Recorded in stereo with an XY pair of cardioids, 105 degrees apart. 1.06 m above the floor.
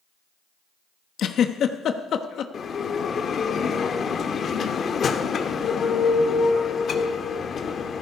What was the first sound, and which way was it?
A giggle, 60° left.